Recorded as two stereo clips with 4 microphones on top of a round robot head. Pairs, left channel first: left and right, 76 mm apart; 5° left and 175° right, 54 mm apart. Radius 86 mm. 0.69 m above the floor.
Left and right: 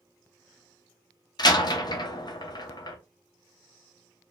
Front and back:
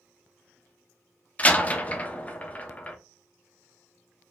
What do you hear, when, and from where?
1.4 s a door slam: 65° left, 0.8 m